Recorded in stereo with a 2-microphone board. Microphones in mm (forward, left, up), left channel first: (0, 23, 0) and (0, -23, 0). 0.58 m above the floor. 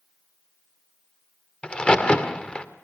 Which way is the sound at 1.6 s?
25° left (ahead or behind).